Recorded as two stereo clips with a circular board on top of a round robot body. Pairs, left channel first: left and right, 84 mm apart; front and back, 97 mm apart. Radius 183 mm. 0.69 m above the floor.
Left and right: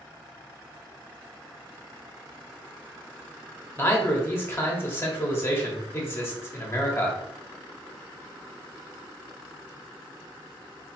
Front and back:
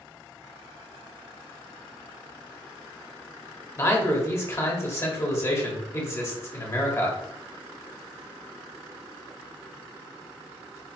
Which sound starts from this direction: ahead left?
A man speaking, at 3.8 s.